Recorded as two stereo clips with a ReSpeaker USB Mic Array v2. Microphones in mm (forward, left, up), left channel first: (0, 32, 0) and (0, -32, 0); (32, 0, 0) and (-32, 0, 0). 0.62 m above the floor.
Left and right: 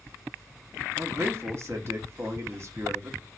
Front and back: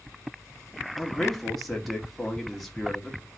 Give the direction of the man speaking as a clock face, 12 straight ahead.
3 o'clock.